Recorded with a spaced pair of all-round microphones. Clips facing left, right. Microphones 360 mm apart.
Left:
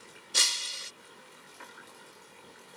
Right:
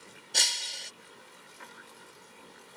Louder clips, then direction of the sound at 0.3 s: Right 1 dB; 15° left (ahead or behind).